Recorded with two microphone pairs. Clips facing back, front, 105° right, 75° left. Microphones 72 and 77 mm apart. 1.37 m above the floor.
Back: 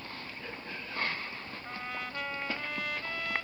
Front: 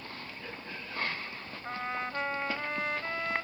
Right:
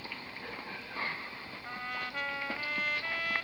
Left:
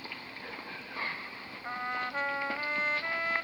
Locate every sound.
1.6 s a trumpet: 35° left